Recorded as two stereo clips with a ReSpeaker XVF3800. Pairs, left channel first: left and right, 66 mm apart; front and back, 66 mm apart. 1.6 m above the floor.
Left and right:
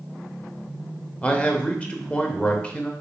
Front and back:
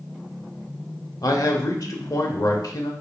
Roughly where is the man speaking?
Ahead.